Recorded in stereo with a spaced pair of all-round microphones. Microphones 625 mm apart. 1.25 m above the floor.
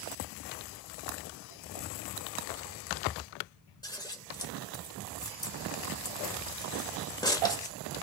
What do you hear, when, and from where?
3.8 s scissors: 5° left (ahead or behind), 1.4 m